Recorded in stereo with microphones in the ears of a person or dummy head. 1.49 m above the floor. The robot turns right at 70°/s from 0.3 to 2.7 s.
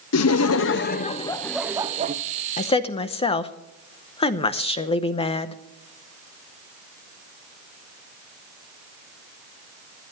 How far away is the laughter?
About 0.8 m.